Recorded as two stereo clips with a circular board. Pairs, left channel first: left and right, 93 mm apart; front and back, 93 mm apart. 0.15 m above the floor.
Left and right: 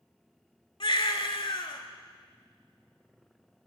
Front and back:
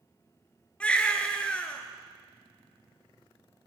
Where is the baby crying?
75° left, 0.9 m.